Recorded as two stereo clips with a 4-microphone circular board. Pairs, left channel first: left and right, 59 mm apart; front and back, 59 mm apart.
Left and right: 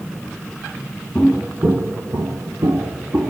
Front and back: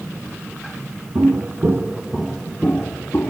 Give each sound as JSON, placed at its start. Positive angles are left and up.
{"t": 1.1, "sound": "footsteps", "azimuth_deg": -175, "distance_m": 1.4}